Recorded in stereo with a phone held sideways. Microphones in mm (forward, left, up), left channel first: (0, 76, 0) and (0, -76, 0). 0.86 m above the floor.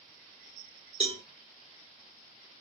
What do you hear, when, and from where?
1.0 s a cowbell: 35° right (ahead or behind), 1.6 m